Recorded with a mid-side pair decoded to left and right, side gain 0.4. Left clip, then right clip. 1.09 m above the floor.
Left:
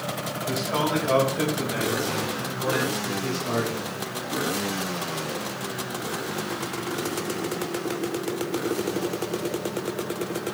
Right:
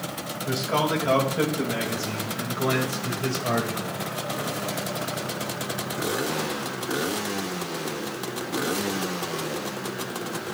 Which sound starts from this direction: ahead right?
A man speaking, at 0.5 s.